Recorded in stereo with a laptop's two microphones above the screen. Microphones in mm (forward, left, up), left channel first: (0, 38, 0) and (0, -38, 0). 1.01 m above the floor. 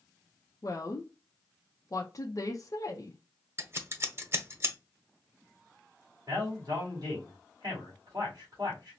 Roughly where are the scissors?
Right.